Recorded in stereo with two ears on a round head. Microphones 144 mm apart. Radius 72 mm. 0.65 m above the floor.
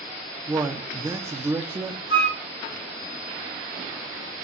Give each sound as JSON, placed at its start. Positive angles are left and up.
{"t": 0.5, "sound": "a man speaking", "side_deg": -20, "distance_m": 0.7}
{"t": 2.1, "sound": "a flute", "side_deg": 75, "distance_m": 3.0}